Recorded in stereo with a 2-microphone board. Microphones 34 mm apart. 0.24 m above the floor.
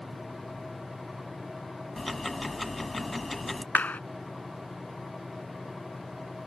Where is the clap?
55° left (ahead or behind).